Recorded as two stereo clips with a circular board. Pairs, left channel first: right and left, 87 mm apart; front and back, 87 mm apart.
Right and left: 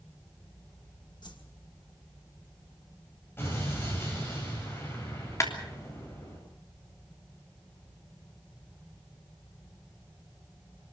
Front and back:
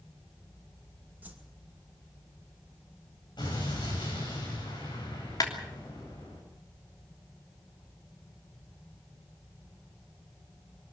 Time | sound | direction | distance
1.2 | a whoosh | 115° right | 2.5 m
3.4 | an explosion | 30° right | 9 m
5.4 | a clap | 40° right | 3 m